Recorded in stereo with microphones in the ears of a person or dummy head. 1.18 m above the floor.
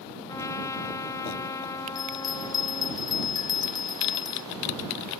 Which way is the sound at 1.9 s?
15° left (ahead or behind).